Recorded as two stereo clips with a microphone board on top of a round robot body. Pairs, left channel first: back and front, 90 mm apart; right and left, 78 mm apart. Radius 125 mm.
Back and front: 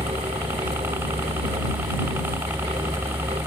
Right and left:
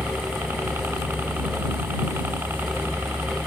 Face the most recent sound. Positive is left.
turn(degrees=50)